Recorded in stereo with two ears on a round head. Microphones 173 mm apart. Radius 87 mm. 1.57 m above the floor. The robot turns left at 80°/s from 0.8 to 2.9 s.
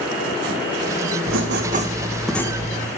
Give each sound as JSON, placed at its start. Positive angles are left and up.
{"t": 1.3, "sound": "writing", "azimuth_deg": -100, "distance_m": 1.9}